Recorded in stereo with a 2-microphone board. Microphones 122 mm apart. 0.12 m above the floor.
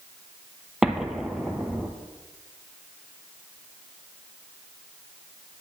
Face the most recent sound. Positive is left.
turn(degrees=-5)  # may be behind; listen again after turning